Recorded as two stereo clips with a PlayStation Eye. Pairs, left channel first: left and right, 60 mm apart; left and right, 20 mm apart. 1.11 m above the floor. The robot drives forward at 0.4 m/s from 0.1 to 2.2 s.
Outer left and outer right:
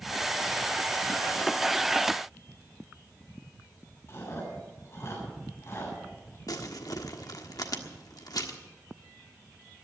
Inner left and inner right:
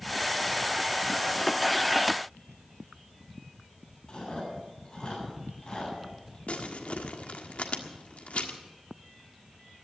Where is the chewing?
45° left (ahead or behind), 8.5 m.